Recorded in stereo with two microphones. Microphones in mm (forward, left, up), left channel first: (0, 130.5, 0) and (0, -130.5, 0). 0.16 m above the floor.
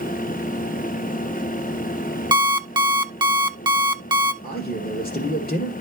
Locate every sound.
2.3 s an alarm clock: 15° right (ahead or behind), 0.7 m
4.4 s a man speaking: 35° left (ahead or behind), 2.5 m